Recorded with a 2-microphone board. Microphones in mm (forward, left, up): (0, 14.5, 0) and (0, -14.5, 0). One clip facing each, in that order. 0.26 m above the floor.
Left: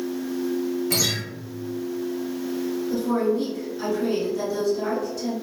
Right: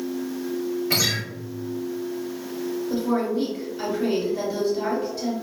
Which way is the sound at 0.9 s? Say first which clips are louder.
Right 3 dB; 30° right (ahead or behind).